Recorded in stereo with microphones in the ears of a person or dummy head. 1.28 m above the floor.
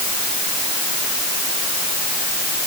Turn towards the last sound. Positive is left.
No sound to turn to.